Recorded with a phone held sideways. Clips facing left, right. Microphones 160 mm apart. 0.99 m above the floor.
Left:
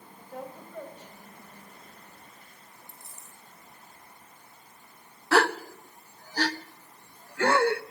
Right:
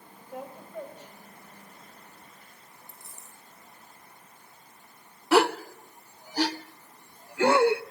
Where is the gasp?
15° right (ahead or behind), 0.6 m.